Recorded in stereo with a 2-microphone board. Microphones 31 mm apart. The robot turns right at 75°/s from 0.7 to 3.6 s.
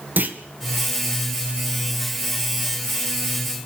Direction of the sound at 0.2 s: 60° right (ahead or behind).